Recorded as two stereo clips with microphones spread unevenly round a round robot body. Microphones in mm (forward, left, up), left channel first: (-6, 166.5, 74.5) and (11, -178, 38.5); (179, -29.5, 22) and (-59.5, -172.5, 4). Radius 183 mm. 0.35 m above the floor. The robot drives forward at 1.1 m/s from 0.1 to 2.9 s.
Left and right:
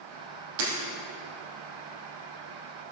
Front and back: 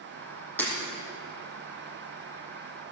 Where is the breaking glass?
55° right, 5 m.